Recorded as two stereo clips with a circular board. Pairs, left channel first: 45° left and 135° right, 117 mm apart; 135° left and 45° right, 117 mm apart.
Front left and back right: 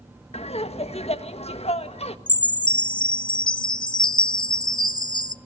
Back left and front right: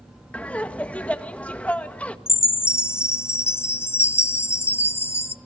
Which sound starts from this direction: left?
A chime, at 2.3 s.